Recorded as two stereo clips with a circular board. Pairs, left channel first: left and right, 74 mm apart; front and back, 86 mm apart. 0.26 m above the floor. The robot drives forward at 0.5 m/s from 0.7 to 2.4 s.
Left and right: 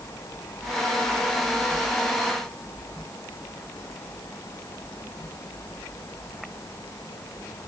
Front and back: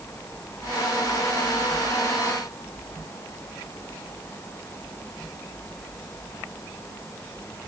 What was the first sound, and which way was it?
Only background noise.